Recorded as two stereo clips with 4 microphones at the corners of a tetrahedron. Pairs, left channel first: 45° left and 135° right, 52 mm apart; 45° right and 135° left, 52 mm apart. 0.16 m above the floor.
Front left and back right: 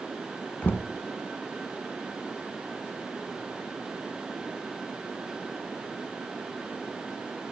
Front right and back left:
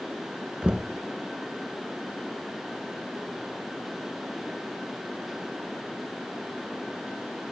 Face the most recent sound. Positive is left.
turn(degrees=75)